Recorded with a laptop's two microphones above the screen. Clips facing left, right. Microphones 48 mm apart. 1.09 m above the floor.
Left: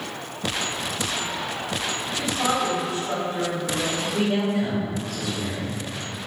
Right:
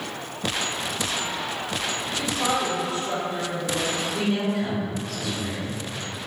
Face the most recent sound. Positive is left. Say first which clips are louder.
# left 3 dB
turn(degrees=55)  # may be behind; listen again after turning